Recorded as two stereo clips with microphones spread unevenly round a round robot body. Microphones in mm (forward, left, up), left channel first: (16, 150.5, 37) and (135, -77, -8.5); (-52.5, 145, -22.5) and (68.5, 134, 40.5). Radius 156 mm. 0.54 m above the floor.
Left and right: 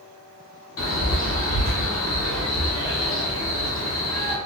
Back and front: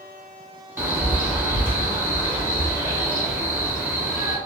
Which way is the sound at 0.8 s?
90° left.